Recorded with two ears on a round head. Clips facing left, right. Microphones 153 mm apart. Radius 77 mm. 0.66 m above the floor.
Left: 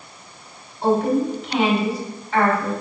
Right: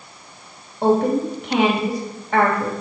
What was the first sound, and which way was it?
A woman speaking, 45° right (ahead or behind).